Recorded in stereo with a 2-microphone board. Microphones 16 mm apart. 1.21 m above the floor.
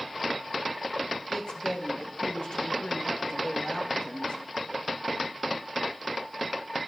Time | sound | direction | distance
1.3 | a woman speaking | 80° left | 1.9 m